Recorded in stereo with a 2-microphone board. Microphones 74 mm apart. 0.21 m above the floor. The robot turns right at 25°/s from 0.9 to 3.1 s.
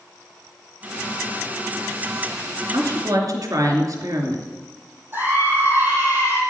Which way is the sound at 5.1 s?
35° right (ahead or behind).